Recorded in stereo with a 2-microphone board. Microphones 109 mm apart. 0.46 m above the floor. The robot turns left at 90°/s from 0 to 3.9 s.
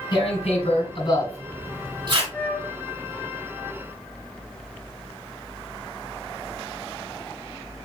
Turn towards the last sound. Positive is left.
turn(degrees=-115)